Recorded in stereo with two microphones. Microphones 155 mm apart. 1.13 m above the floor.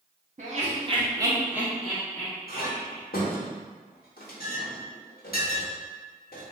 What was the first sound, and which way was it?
Laughter, 50° right (ahead or behind).